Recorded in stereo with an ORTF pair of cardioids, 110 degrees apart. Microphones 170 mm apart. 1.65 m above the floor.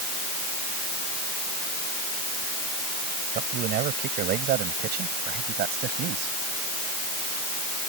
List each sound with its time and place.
3.3 s a man speaking: 65° right; by 6.3 s 75° right